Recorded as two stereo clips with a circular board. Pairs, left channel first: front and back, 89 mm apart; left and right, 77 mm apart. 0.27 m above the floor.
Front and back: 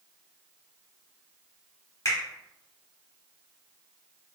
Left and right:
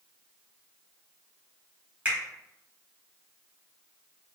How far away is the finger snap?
About 1.1 m.